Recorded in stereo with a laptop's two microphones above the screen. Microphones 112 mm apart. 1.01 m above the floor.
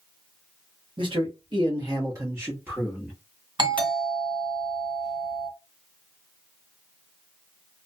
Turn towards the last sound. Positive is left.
turn(degrees=-45)  # may be behind; listen again after turning